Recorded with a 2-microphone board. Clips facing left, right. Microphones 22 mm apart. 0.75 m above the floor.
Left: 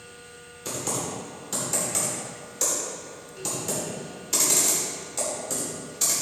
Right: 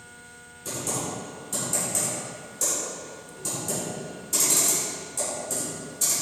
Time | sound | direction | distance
0.7 | typing on a keyboard | 40° left (ahead or behind) | 2 m